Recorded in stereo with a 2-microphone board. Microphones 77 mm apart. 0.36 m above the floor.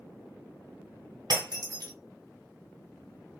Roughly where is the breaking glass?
Right.